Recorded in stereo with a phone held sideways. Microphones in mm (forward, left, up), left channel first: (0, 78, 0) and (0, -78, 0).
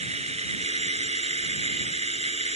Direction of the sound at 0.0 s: 45° right (ahead or behind).